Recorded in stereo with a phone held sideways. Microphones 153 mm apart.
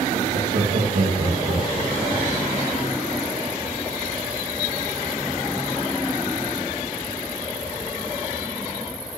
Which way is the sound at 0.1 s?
85° right.